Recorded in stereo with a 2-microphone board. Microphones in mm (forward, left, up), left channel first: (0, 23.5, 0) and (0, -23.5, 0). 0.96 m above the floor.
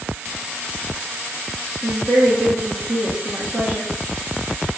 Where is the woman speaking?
55° right (ahead or behind), 1.5 m.